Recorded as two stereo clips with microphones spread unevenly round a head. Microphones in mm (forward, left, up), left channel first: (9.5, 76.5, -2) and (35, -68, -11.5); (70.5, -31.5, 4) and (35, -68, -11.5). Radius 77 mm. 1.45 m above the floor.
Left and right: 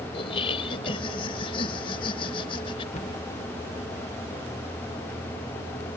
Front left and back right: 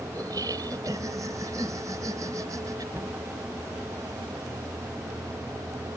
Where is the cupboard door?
155° left.